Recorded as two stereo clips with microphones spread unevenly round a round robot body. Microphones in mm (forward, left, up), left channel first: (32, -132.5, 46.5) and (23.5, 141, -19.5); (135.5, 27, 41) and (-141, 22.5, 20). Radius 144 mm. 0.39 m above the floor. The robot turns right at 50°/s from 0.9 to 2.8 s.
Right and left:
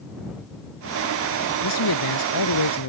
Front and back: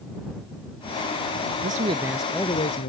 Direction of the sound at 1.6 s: 120° right.